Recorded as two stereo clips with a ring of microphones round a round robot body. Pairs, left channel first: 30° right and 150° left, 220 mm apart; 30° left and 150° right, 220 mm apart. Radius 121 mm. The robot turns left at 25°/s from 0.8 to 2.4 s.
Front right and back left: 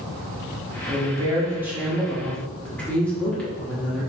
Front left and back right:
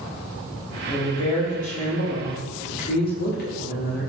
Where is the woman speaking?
90° left, 1.6 m; by 4.1 s 50° left, 1.6 m.